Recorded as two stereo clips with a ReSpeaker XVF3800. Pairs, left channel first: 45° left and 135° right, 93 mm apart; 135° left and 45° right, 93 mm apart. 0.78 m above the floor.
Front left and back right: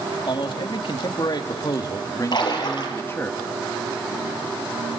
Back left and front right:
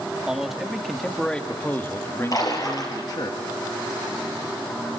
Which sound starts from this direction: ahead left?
A man speaking, at 0.3 s.